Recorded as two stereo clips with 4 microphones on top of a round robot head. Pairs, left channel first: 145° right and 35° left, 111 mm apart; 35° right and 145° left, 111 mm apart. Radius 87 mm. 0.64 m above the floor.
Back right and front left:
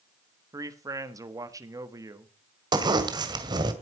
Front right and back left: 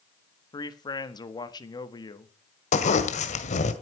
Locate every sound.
0.5 s a man speaking: 10° right, 1.6 m
2.7 s a zipper: 20° right, 1.9 m